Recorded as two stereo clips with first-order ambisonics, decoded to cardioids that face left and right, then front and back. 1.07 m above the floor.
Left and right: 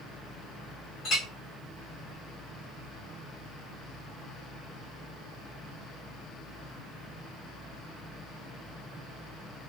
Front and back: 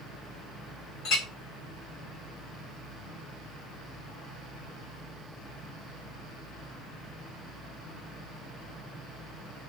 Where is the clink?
35° left, 1.6 m.